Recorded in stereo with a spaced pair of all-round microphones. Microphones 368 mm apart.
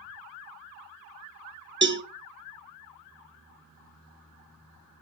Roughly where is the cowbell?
Right.